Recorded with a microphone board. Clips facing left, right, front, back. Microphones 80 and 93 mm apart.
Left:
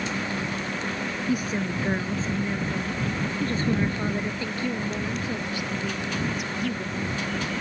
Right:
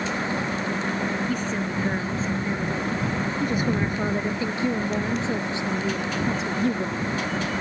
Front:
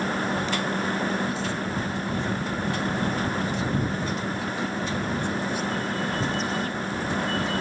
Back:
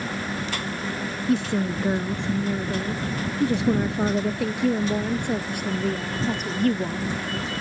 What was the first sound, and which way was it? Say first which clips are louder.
A woman speaking: even, back 5 dB; 170° left.